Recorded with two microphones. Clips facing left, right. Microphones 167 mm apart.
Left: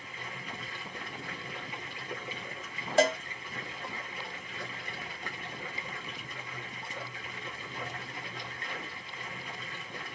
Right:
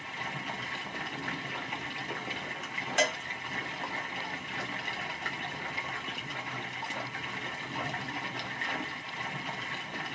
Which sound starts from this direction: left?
A cowbell, at 3.0 s.